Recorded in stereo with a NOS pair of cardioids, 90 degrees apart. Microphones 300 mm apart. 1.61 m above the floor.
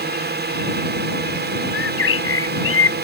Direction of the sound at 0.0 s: 35° right.